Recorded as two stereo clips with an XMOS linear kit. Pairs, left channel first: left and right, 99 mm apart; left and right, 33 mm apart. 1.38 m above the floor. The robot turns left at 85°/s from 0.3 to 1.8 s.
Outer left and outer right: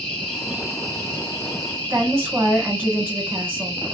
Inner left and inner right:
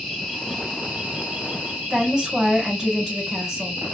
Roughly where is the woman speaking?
Right.